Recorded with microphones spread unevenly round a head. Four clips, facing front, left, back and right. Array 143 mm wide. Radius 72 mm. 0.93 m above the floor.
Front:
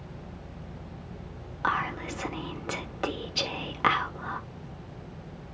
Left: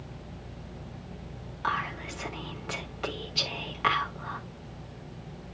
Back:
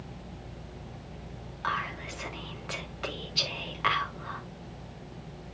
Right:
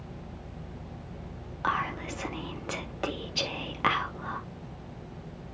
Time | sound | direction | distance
1.6 | whispering | 50° right | 1.9 m